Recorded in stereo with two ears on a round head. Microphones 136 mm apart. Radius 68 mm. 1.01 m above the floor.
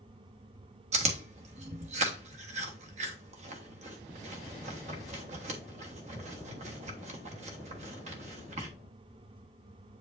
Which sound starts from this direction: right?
Chewing, at 0.9 s.